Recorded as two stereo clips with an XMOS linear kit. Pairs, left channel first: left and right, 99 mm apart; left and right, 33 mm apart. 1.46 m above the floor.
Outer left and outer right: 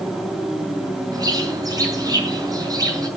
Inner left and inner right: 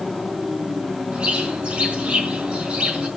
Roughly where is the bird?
Right.